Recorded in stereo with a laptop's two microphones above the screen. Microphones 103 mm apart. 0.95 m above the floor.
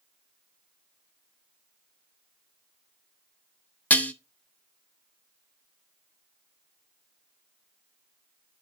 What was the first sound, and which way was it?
Dishes clattering, 15° left (ahead or behind).